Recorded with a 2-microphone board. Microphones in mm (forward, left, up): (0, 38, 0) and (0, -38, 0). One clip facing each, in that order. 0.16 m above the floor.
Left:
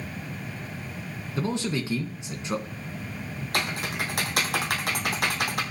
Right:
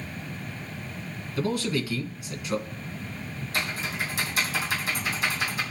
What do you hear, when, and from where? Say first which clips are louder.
1.4 s a man speaking: right 1 dB; 25° left (ahead or behind), 1.5 m
3.5 s typing on a keyboard: left 2 dB; 65° left (ahead or behind), 2 m